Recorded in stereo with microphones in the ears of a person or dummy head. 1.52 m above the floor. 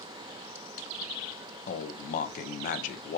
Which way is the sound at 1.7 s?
50° left (ahead or behind).